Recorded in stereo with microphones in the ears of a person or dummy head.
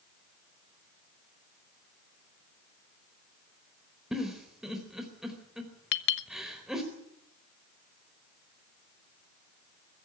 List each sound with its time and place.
4.1 s a giggle: centre (ahead or behind), 4 m
5.9 s a clink: 65° left (ahead or behind), 1.1 m